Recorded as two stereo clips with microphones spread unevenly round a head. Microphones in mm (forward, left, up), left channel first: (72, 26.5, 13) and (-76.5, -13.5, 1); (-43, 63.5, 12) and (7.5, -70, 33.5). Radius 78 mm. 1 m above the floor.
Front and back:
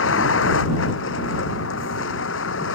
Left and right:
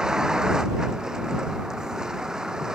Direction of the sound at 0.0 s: 15° left.